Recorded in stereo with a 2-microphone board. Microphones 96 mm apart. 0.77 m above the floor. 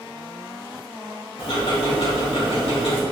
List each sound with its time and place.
1.4 s ticking: 75° left (ahead or behind), 2 m